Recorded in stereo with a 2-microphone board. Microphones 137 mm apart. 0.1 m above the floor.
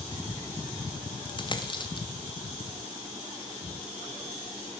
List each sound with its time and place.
1.3 s a dropped coin: 35° left (ahead or behind), 1.5 m